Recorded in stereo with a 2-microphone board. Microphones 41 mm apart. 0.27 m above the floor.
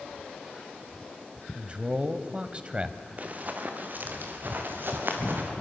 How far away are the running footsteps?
About 3 m.